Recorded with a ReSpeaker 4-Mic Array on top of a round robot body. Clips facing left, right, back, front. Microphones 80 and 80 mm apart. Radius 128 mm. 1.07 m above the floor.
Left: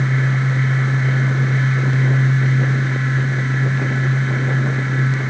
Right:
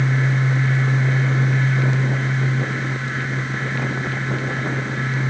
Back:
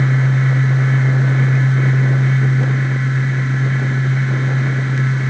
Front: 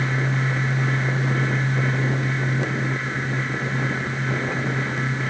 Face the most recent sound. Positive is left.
No sound to turn to.